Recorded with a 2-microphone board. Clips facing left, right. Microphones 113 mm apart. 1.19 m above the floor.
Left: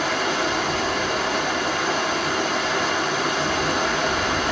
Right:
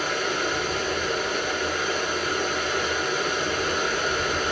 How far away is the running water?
About 1.4 m.